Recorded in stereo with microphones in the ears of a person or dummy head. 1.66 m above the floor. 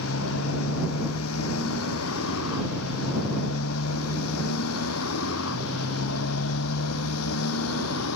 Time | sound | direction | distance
0.0 | a motorcycle | 85° left | ?